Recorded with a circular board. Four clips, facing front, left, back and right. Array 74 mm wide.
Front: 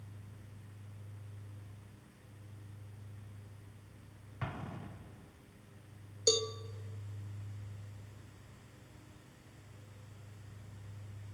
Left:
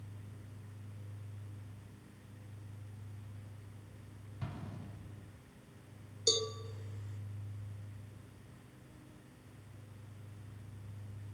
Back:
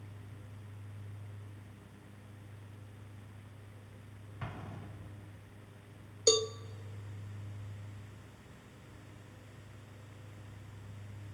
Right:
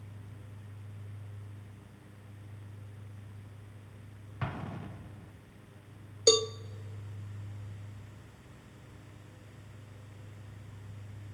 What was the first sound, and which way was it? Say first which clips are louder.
An explosion: right 8 dB, front 3 dB; 75° right.